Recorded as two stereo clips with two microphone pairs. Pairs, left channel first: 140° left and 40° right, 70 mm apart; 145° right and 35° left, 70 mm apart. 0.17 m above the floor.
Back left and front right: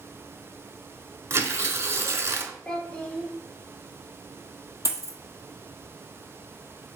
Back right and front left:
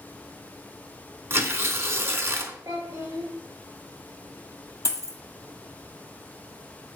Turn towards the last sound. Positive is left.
turn(degrees=180)